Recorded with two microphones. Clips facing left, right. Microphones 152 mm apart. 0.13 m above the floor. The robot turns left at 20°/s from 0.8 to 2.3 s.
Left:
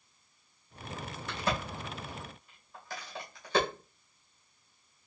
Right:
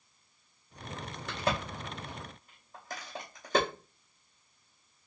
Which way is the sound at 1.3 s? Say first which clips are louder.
Right 1 dB; 65° right (ahead or behind).